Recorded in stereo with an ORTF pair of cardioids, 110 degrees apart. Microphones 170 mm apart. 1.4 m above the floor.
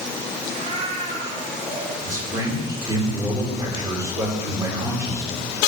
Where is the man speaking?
20° right, 5 m.